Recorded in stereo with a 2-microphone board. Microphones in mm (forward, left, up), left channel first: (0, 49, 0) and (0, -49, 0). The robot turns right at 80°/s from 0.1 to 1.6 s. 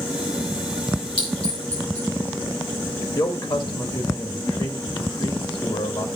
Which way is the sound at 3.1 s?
55° left (ahead or behind).